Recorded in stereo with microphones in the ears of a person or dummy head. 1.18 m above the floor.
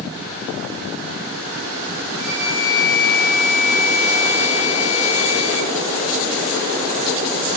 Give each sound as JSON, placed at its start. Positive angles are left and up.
{"t": 2.2, "sound": "a flute", "side_deg": 70, "distance_m": 7.5}